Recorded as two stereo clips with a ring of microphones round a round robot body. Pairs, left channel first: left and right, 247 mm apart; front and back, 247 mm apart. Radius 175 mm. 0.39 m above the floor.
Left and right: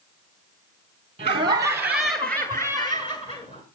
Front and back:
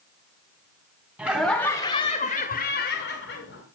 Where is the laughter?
105° right, 1.4 m; by 3.6 s 30° left, 2.5 m.